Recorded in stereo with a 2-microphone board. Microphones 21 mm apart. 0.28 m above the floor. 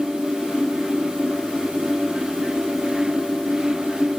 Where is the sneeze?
I don't hear a sneeze.